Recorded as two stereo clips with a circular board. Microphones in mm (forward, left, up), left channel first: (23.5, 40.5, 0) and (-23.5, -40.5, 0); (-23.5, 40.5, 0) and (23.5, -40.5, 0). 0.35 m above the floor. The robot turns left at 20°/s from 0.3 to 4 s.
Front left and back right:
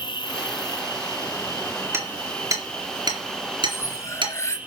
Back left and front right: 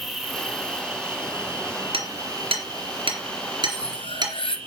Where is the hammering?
60° right, 3.5 m; by 4.3 s 100° right, 3.5 m.